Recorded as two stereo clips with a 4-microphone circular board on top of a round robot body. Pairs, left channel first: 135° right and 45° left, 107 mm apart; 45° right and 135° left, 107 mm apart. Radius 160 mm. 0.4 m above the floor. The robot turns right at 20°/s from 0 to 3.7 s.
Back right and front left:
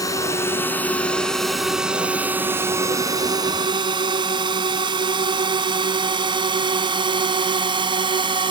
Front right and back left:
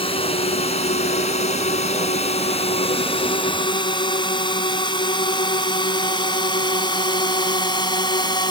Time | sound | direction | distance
0.0 | a drone | 75° right | ?